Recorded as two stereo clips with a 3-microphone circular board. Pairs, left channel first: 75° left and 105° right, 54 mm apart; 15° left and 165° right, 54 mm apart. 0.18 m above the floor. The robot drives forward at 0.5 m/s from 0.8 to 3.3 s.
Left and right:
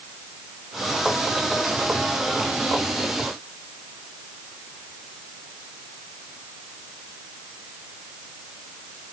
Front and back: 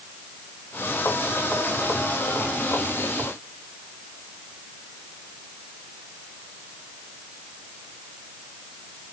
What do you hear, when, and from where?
Only background noise.